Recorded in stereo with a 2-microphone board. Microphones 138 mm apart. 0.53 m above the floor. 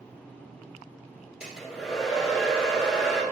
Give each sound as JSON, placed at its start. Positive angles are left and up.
{"t": 1.4, "sound": "a hair dryer", "side_deg": -5, "distance_m": 1.3}